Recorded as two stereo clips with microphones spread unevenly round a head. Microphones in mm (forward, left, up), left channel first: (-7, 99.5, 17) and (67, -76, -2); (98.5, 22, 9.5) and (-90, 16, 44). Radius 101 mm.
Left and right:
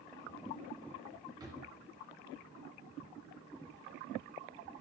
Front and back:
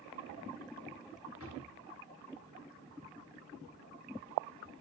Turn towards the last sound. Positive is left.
turn(degrees=5)